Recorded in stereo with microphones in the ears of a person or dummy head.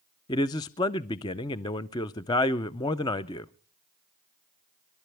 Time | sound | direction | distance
0.3 | a man speaking | 15° left (ahead or behind) | 0.6 m